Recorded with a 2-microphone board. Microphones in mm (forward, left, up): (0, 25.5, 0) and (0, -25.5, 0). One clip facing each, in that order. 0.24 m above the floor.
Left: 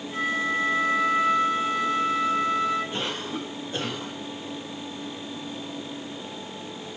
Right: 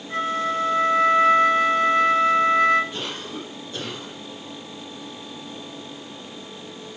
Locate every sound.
0.1 s a flute: 60° right (ahead or behind), 4 m
2.9 s a cough: 35° left (ahead or behind), 7.5 m